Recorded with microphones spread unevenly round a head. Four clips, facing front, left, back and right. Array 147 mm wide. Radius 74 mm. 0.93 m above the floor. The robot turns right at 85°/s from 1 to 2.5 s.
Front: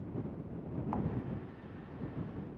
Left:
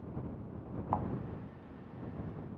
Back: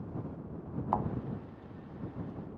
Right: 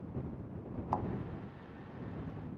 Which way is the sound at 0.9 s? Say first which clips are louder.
Left 1 dB, back 6 dB; 165° left.